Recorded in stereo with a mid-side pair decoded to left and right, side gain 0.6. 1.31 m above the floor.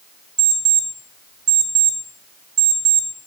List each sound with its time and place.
0.4 s an alarm clock: 55° right, 3 m